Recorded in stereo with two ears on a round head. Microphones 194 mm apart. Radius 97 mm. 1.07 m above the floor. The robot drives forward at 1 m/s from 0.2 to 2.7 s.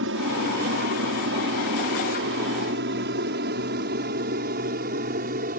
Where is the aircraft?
60° right (ahead or behind); by 5.6 s 40° right (ahead or behind).